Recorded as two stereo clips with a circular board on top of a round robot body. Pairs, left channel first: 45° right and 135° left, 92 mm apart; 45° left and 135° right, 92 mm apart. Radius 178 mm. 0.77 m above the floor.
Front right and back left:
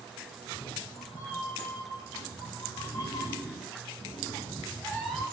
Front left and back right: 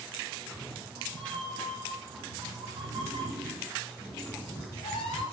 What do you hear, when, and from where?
0.4 s a cat meowing: 115° right, 4 m; by 5.2 s 50° left, 1.2 m